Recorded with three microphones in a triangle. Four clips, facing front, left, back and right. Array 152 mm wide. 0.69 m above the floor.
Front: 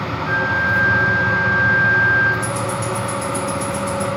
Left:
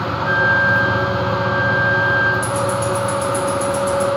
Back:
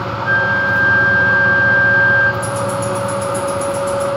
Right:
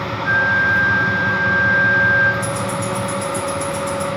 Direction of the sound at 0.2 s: 145° right.